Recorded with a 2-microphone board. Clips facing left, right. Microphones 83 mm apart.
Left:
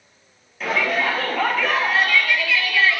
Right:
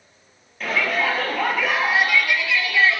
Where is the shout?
5° left (ahead or behind), 3 m; by 3.0 s 25° right (ahead or behind), 2.5 m.